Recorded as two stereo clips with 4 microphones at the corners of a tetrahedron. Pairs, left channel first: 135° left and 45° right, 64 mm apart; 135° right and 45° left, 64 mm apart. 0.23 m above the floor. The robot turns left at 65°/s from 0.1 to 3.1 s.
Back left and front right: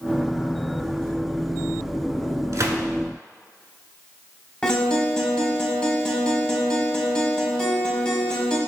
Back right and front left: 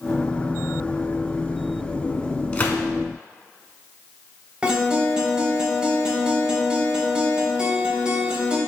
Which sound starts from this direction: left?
A guitar, at 4.6 s.